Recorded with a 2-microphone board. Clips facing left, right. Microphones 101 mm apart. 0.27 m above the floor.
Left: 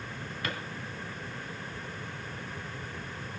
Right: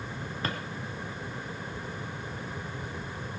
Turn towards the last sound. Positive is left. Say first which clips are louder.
# right 2 dB
turn(degrees=-35)  # may be behind; listen again after turning